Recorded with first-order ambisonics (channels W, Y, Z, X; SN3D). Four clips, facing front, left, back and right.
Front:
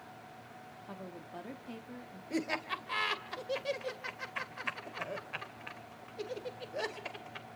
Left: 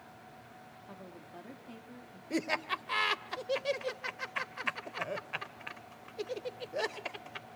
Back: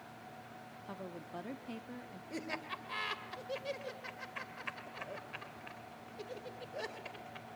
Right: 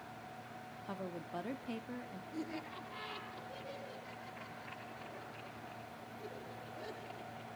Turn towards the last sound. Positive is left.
turn(degrees=70)